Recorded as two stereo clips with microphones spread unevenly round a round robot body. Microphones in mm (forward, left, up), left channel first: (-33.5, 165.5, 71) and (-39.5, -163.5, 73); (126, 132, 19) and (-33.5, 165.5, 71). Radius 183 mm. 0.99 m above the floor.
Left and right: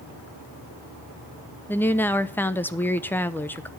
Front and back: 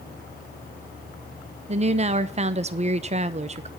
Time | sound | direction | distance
1.7 | a woman speaking | 160° left | 0.7 m